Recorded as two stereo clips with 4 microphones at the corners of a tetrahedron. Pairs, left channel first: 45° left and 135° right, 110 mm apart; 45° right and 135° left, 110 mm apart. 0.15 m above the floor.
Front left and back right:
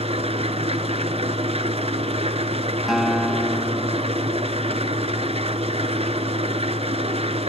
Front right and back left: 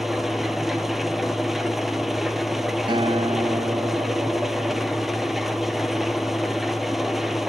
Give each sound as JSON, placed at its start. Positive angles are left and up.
{"t": 0.0, "sound": "an engine running", "azimuth_deg": -140, "distance_m": 1.1}
{"t": 2.9, "sound": "a guitar", "azimuth_deg": 140, "distance_m": 0.8}